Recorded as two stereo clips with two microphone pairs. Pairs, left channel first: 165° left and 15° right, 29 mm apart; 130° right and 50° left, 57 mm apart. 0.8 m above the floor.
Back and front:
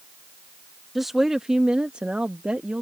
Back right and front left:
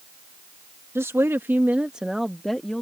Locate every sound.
0.9 s a woman speaking: 65° left; by 2.8 s 55° right